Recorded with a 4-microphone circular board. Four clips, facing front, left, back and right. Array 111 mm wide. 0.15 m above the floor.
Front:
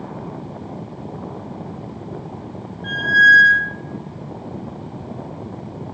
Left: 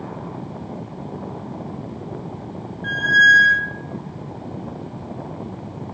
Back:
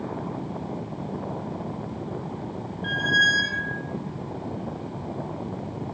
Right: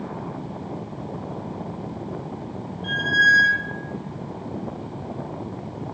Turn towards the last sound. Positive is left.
turn(degrees=90)